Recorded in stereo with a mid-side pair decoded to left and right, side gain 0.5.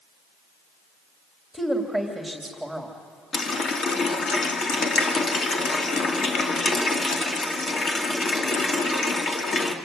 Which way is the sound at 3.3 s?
45° left.